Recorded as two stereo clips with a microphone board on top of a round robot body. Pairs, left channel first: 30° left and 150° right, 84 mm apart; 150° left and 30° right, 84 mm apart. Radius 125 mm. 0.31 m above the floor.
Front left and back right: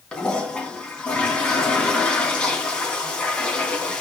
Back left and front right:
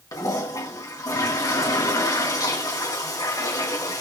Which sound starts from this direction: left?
A toilet flushing, at 0.1 s.